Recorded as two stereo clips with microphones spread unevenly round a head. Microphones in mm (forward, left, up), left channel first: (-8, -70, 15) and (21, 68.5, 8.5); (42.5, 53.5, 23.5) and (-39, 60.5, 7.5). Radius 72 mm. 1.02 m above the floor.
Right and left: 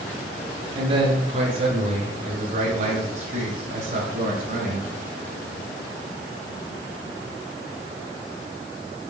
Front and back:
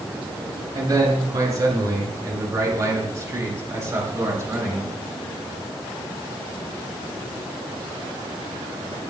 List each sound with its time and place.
0.8 s a man speaking: 135° left, 10 m; by 4.9 s 115° left, 13 m